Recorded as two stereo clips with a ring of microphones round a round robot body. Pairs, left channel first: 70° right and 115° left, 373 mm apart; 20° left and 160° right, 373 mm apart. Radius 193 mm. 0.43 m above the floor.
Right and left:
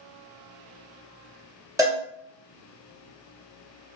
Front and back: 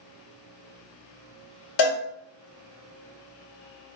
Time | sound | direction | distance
1.8 | a cowbell | 35° left | 1.0 m